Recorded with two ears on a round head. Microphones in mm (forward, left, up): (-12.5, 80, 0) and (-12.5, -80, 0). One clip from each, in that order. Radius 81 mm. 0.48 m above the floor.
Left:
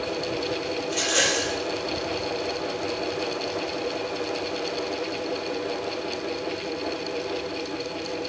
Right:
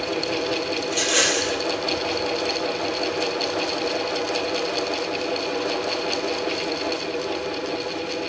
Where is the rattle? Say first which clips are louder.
Right 2 dB; 10° right (ahead or behind), 4.5 m.